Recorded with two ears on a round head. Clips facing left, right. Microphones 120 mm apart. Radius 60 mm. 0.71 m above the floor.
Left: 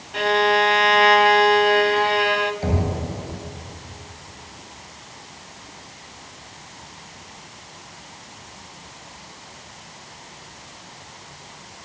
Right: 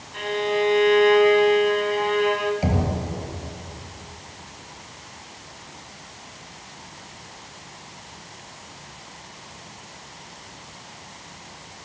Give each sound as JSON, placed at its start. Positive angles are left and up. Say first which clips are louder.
{"t": 0.1, "sound": "a violin", "louder": "left 5 dB", "side_deg": 70, "distance_m": 1.2}
{"t": 2.6, "sound": "knocking", "louder": "even", "side_deg": -15, "distance_m": 8.0}